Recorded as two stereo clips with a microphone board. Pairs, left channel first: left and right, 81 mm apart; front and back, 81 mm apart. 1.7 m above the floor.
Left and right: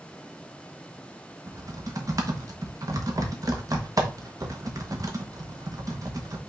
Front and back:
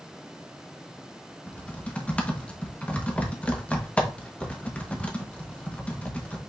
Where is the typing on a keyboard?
70° right, 1.1 m.